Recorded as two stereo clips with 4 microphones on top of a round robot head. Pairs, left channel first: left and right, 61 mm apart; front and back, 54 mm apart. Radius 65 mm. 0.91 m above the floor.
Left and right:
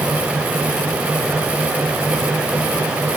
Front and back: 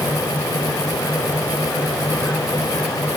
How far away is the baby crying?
No baby crying in this recording.